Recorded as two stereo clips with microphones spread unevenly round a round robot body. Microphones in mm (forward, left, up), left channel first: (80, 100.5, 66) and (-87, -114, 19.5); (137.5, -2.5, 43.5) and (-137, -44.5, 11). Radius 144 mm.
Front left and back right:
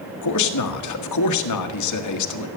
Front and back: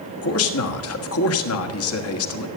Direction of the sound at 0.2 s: 45° left.